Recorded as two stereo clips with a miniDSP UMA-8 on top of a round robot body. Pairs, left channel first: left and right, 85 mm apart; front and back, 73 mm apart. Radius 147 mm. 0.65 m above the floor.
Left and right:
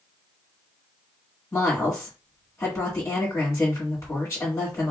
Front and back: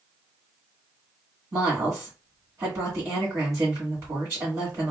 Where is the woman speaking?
145° left, 1.6 m.